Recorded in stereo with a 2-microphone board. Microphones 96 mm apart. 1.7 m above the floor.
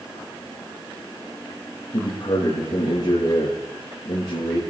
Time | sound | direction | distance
1.9 | a man speaking | 50° left (ahead or behind) | 3 m